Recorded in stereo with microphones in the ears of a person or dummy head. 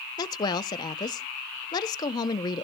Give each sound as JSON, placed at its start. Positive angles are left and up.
{"t": 0.2, "sound": "a woman speaking", "side_deg": 20, "distance_m": 0.6}